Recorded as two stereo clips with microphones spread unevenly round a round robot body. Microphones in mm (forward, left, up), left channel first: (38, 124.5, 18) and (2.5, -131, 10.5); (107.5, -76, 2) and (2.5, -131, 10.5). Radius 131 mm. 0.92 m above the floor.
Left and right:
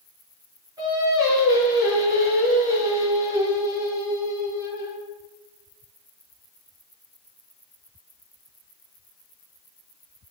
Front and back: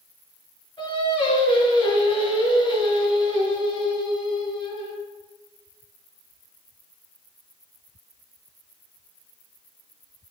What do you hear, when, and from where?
0.8 s singing: 20° right, 5 m